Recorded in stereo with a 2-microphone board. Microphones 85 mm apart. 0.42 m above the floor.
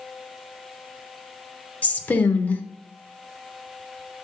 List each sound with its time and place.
1.8 s a woman speaking: 20° left (ahead or behind), 0.8 m